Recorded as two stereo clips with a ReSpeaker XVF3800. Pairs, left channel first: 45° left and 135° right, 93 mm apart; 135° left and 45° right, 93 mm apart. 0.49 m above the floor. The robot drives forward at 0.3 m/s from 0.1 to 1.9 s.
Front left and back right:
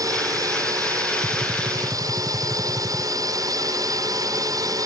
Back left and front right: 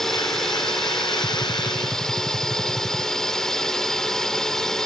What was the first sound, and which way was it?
A drone, 140° right.